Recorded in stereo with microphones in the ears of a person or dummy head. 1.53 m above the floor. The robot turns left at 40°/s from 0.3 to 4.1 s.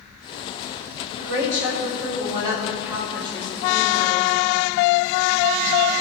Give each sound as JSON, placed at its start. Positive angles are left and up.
{"t": 1.2, "sound": "a woman speaking", "azimuth_deg": -105, "distance_m": 5.5}